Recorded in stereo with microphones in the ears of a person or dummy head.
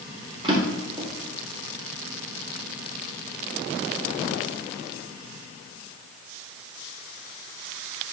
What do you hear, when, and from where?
0.4 s a drawer: 30° right (ahead or behind), 2.0 m